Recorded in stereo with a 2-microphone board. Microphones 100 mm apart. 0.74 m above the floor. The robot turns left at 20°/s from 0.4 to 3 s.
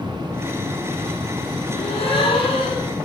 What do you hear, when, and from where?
1.7 s a gasp: 75° left (ahead or behind), 9.5 m; by 3.0 s 50° left (ahead or behind), 9.5 m